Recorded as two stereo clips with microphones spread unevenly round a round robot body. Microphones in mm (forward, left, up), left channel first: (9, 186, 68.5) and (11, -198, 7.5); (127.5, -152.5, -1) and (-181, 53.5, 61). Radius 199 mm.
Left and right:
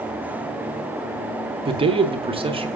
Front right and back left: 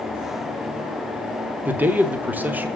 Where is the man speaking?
110° right, 0.9 m.